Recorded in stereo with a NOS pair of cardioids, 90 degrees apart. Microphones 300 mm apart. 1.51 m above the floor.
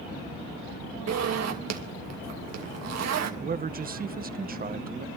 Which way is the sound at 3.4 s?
30° right.